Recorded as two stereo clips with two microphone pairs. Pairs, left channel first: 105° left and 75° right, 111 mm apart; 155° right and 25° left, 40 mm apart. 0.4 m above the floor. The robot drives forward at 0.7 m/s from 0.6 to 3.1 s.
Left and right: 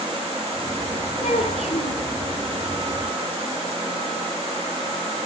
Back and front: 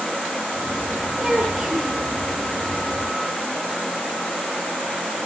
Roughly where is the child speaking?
Left.